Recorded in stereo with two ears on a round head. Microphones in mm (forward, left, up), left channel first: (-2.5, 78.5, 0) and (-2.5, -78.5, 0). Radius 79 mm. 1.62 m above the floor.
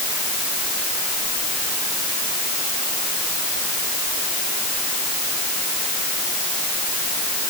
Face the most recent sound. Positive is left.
No sound to turn to.